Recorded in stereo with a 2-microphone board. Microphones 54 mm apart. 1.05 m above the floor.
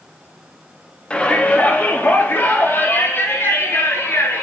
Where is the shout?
20° left (ahead or behind), 2 m; by 4.4 s 60° left (ahead or behind), 4 m.